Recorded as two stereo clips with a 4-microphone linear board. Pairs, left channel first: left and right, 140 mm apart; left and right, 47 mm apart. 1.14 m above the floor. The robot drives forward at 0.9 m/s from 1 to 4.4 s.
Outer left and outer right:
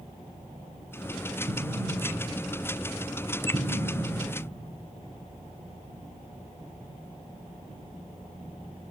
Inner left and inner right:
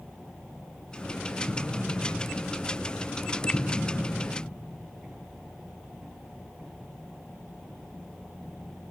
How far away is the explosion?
About 6 m.